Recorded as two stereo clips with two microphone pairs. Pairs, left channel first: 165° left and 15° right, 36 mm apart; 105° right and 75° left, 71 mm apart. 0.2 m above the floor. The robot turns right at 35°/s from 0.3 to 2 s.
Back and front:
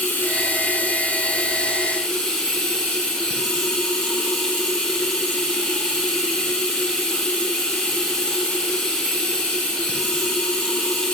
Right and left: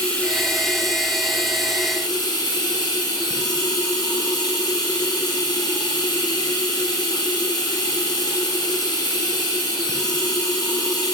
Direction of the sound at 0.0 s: Straight behind.